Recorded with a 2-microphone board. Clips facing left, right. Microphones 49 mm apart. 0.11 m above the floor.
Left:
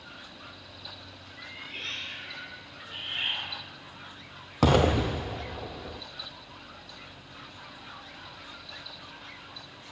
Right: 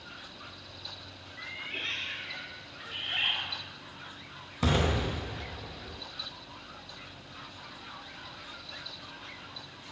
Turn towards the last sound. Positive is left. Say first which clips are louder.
# left 6 dB
turn(degrees=75)  # may be behind; listen again after turning